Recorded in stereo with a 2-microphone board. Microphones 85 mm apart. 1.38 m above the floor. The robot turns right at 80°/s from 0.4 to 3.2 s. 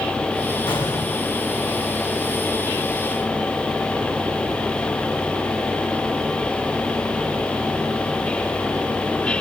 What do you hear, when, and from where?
0.7 s an explosion: 115° left, 4 m; by 1.3 s 165° left, 4 m